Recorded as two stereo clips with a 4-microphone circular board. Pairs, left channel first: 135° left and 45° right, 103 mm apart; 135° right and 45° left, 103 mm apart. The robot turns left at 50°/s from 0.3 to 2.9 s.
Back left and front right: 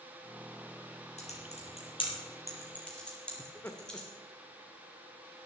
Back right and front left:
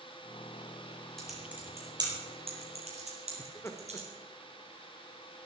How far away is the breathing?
I don't hear breathing.